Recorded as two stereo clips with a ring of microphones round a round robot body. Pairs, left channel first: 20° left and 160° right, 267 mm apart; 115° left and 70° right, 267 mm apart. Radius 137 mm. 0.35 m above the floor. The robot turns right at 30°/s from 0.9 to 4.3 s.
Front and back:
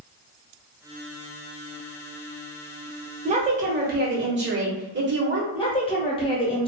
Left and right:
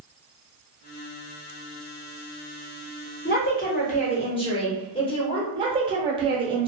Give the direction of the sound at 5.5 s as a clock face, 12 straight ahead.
1 o'clock.